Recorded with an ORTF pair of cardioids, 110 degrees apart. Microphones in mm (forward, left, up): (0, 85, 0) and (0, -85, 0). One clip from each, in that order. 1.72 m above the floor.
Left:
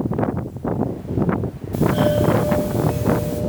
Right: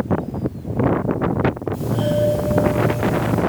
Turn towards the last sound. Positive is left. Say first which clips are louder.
# left 3 dB
turn(degrees=55)